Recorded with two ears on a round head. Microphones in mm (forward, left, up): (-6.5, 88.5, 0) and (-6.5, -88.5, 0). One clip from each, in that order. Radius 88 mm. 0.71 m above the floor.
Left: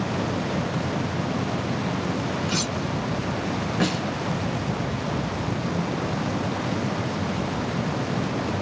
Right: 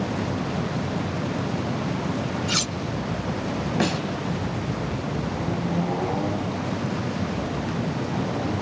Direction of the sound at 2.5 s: 30° right (ahead or behind).